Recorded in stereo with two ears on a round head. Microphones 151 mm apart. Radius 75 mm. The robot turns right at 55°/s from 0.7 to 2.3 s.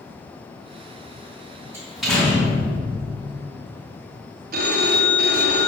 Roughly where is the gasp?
No gasp in this recording.